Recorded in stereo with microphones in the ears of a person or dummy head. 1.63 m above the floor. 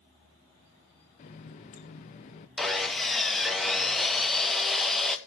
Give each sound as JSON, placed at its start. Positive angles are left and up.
{"t": 1.2, "sound": "a running tap", "side_deg": 25, "distance_m": 0.6}
{"t": 2.6, "sound": "sawing", "side_deg": 0, "distance_m": 1.1}